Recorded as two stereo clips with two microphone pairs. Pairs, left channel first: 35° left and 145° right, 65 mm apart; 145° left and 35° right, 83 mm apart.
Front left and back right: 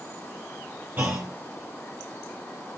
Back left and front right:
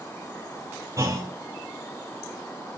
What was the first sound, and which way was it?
A clunk, 80° right.